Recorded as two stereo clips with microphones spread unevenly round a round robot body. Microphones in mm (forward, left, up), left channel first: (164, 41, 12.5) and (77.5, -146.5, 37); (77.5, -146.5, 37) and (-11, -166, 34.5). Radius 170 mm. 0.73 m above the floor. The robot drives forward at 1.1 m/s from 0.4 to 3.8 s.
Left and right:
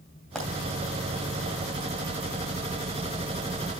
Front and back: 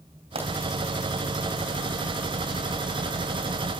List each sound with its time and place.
0.3 s a pop: 155° left, 2.5 m